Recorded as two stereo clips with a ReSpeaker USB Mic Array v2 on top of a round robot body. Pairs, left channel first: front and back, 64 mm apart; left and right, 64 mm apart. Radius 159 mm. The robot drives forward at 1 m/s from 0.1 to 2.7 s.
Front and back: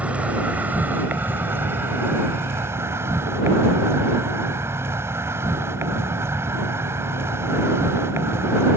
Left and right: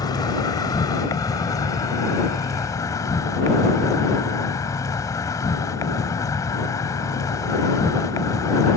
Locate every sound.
0.0 s an insect: 110° left; by 8.8 s 130° left